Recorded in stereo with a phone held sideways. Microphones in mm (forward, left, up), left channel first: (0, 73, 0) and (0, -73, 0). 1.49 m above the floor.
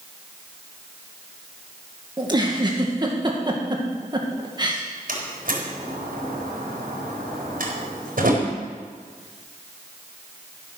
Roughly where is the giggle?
Right.